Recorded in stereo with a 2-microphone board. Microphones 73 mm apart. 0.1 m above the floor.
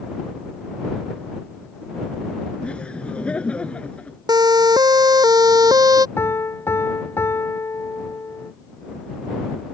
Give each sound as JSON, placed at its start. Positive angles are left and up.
{"t": 2.6, "sound": "laughter", "side_deg": 15}
{"t": 4.3, "sound": "a siren", "side_deg": -75}
{"t": 6.2, "sound": "a piano", "side_deg": 35}